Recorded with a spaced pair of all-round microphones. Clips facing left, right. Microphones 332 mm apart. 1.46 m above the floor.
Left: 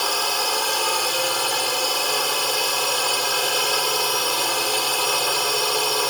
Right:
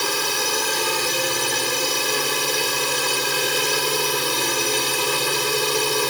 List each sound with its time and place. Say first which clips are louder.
0.0 s a drone: right 1 dB; 30° right (ahead or behind)